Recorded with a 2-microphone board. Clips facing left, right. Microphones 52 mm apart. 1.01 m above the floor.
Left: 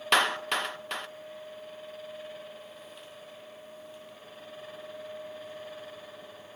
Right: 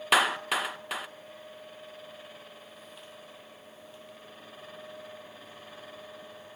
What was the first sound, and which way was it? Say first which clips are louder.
A clap: right 1 dB; 5° right (ahead or behind).